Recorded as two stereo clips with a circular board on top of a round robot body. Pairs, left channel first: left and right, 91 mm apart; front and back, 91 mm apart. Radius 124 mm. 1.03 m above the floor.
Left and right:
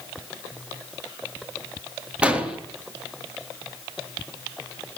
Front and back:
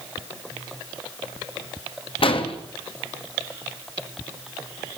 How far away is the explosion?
About 3 m.